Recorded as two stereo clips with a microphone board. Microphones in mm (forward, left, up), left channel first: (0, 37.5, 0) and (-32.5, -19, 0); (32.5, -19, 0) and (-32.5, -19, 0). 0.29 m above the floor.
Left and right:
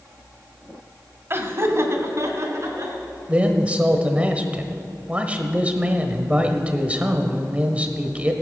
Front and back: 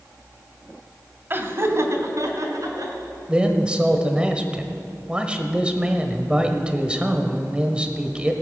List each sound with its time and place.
1.3 s laughter: 145° right, 1.3 m; by 3.0 s 155° right, 3.5 m
3.3 s a man speaking: 140° right, 1.1 m